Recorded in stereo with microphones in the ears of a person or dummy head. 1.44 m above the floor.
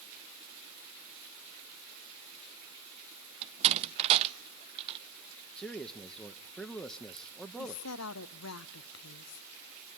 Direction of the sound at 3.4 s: 35° right (ahead or behind).